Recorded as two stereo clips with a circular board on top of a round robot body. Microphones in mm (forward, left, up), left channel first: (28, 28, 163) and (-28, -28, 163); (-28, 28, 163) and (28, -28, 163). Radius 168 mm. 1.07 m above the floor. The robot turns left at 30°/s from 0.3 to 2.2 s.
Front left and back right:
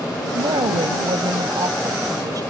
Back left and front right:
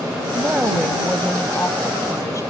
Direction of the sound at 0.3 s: 120° right.